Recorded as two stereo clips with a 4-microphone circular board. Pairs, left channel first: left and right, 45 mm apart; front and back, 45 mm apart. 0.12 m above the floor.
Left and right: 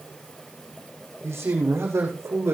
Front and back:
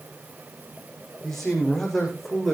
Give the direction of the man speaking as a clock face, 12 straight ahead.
3 o'clock.